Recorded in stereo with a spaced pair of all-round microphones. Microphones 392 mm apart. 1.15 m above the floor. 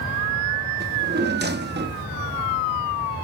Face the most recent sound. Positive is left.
turn(degrees=-25)  # may be behind; listen again after turning